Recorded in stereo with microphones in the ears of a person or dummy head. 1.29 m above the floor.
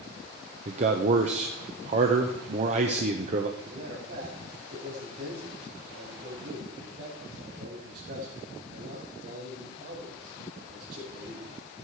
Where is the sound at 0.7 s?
40° right (ahead or behind), 1.0 m.